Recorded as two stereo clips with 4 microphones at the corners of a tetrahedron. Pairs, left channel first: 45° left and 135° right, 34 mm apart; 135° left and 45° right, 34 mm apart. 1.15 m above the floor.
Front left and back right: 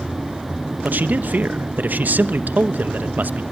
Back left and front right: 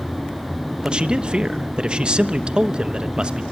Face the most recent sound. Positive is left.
turn(degrees=-105)